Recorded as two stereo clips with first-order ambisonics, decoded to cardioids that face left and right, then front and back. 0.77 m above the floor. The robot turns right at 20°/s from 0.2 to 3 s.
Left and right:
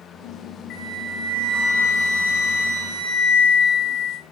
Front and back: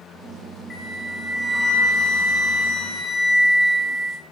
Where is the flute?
60° left, 0.7 m; by 4.2 s 105° left, 0.7 m.